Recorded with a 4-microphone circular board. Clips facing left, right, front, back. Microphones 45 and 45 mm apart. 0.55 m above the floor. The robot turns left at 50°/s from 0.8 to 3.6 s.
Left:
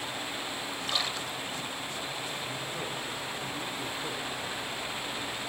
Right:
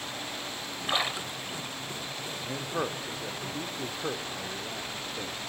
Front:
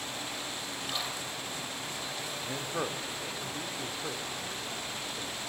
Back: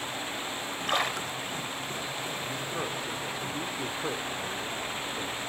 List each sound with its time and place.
0.9 s a splash: 145° right, 0.8 m; by 1.8 s 170° left, 0.8 m
2.4 s a man speaking: 65° right, 1.1 m; by 5.4 s 125° right, 1.1 m